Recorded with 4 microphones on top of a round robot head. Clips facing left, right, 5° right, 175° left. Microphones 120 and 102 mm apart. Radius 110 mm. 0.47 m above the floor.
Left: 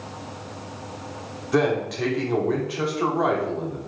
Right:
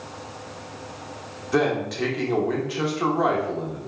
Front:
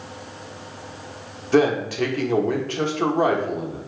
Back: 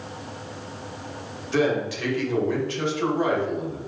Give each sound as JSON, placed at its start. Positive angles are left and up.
{"t": 1.5, "sound": "a man speaking", "azimuth_deg": 0, "distance_m": 1.2}